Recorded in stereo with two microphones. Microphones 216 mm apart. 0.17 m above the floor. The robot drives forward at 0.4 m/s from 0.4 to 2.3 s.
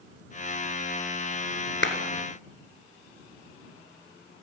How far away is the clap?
About 1.6 m.